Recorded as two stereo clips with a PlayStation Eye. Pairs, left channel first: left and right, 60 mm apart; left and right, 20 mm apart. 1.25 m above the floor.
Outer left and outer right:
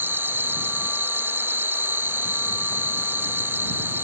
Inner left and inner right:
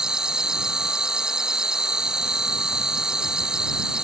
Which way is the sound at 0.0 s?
40° right (ahead or behind).